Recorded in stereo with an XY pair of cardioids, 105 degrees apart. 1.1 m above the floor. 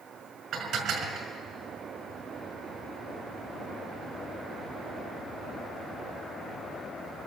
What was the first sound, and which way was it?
Dishes clattering, 65° right.